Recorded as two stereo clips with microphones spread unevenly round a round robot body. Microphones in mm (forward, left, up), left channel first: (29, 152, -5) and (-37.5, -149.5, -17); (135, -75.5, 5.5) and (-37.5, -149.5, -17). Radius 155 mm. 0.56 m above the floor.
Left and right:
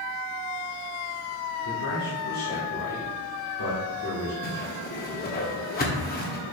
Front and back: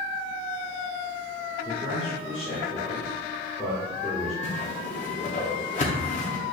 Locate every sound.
1.6 s a man speaking: 95° left, 1.7 m
4.4 s a whoosh: 40° left, 1.0 m